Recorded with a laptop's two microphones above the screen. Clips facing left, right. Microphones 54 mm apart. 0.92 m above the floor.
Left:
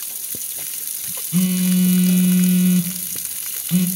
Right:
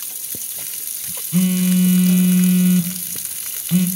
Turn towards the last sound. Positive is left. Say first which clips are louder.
# right 1 dB
turn(degrees=-15)  # may be behind; listen again after turning